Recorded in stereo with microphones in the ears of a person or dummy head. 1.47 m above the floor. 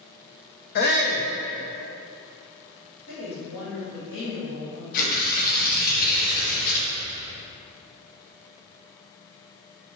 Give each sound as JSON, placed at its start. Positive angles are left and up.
{"t": 0.8, "sound": "a shout", "side_deg": 50, "distance_m": 0.6}
{"t": 3.1, "sound": "a woman speaking", "side_deg": 60, "distance_m": 2.5}
{"t": 4.9, "sound": "tearing paper", "side_deg": 50, "distance_m": 1.2}